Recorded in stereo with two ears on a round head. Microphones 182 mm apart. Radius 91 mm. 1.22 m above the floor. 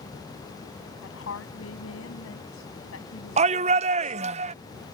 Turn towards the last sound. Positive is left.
turn(degrees=-30)  # may be behind; listen again after turning